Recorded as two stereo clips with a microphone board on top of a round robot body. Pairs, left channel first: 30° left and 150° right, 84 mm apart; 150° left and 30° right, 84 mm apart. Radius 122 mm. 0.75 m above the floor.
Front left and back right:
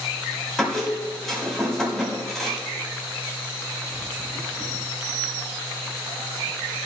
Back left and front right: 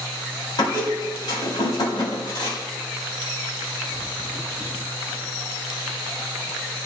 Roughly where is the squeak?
Behind left.